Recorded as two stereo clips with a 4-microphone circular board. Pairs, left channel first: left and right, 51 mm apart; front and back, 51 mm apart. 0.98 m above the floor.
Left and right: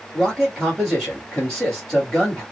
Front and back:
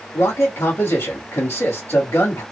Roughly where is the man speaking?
Ahead.